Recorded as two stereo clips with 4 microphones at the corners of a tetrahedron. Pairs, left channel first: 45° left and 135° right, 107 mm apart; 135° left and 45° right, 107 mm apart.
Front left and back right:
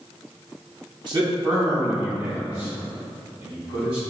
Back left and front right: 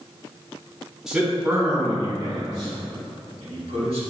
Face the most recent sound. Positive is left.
turn(degrees=-55)